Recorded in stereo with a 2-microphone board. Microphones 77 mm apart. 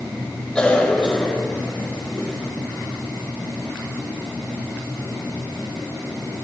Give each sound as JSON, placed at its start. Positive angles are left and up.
{"t": 0.6, "sound": "a cough", "side_deg": 10, "distance_m": 5.0}